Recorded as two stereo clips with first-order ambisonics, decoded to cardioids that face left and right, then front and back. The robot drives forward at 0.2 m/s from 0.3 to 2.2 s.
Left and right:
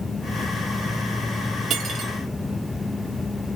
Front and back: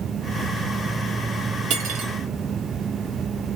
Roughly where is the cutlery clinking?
Behind right.